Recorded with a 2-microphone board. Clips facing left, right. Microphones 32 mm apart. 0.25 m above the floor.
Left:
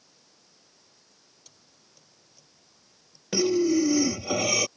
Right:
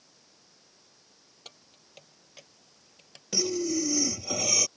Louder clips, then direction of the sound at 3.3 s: Left 7 dB; 25° left (ahead or behind).